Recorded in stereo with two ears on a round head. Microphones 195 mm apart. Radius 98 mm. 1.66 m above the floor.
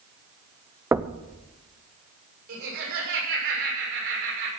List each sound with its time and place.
0.9 s knocking: 10° right (ahead or behind), 0.5 m
2.5 s laughter: 60° right (ahead or behind), 6.5 m